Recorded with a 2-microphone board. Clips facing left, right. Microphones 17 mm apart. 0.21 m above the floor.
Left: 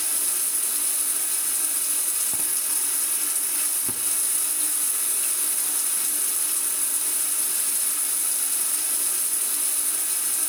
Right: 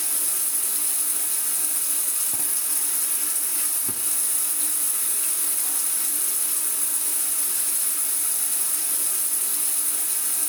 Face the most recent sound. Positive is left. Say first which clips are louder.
# left 1 dB
turn(degrees=0)  # may be behind; listen again after turning